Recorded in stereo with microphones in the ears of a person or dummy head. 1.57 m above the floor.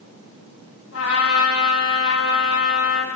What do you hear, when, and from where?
0.9 s a trumpet: 75° left (ahead or behind), 5.5 m